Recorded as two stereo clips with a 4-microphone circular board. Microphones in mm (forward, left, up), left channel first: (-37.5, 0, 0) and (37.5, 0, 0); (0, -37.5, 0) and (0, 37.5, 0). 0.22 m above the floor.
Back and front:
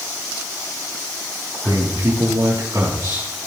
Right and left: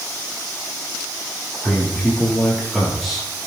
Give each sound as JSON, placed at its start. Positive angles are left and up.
{"t": 1.6, "sound": "a man speaking", "azimuth_deg": 0, "distance_m": 4.0}